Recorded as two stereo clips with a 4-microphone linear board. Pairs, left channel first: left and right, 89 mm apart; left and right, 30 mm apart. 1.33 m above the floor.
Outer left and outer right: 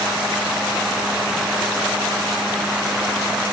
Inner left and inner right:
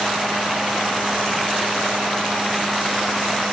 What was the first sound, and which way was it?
Only background noise.